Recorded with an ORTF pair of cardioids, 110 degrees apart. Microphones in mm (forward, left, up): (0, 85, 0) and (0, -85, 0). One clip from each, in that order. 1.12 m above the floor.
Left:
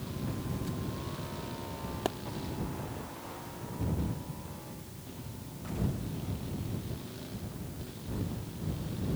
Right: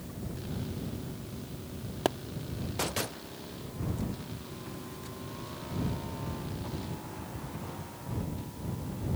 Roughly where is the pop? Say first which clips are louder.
Right 5 dB; ahead right.